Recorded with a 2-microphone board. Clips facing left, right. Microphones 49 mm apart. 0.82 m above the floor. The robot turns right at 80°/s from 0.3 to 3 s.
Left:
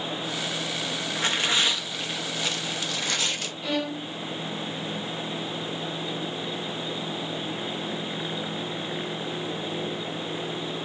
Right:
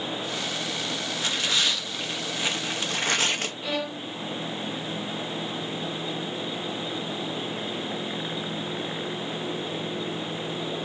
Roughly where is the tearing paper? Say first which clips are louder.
Left 3 dB; left.